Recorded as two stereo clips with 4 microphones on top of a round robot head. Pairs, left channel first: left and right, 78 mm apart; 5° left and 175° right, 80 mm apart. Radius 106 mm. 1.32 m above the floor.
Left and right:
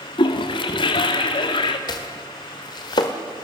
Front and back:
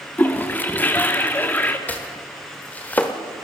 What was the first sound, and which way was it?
A toilet flushing, 70° left.